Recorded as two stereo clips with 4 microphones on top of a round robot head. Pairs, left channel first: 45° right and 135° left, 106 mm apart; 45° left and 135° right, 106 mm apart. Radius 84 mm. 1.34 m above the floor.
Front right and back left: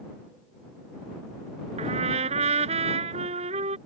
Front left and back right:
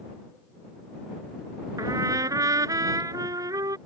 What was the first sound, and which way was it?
A trumpet, 165° left.